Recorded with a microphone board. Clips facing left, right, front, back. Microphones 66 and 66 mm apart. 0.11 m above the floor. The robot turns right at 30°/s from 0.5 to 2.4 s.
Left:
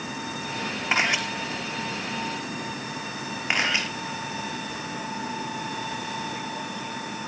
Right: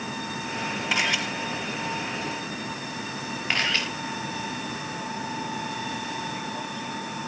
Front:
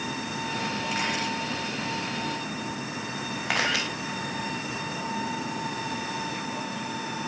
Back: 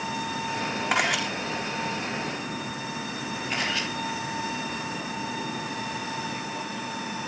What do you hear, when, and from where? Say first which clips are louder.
0.9 s a camera shutter: left 3 dB, back 7 dB; 150° left, 4 m; by 1.2 s 160° left, 4 m
3.5 s a camera shutter: left 1 dB, front 4 dB; 15° left, 6 m